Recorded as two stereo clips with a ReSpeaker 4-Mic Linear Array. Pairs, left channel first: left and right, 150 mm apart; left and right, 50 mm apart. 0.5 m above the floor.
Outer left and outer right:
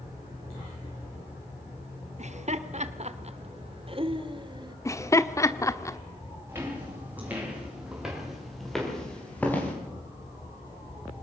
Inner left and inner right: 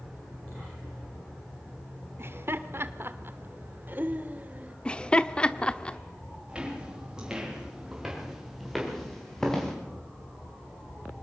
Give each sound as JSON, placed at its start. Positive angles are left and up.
{"t": 2.2, "sound": "laughter", "side_deg": -50, "distance_m": 1.3}
{"t": 4.8, "sound": "laughter", "side_deg": 20, "distance_m": 0.9}
{"t": 6.5, "sound": "footsteps", "side_deg": -15, "distance_m": 9.0}